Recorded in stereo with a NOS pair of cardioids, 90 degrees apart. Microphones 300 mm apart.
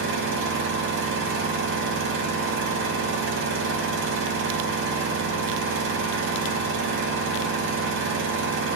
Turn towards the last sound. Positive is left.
turn(degrees=-45)